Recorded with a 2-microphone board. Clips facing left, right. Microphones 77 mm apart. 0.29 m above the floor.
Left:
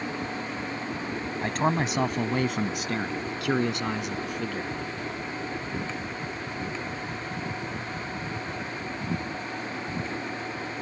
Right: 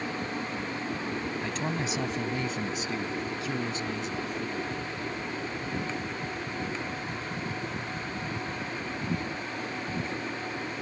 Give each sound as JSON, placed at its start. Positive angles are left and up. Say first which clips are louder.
{"t": 1.4, "sound": "a man speaking", "louder": "left 6 dB", "side_deg": 55}